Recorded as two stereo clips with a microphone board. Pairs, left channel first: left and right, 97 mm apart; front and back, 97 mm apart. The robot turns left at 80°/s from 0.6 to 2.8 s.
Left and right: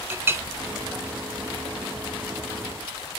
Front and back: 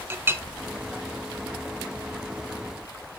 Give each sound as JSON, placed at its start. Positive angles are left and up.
{"t": 0.1, "sound": "a clink", "azimuth_deg": -135, "distance_m": 0.7}